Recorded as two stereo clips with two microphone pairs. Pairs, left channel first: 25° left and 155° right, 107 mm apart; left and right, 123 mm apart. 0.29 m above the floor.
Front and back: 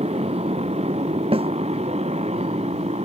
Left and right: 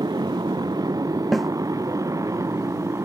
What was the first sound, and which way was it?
A motorcycle, 145° right.